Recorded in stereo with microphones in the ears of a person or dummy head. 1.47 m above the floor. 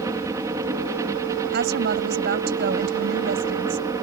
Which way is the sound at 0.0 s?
20° right (ahead or behind).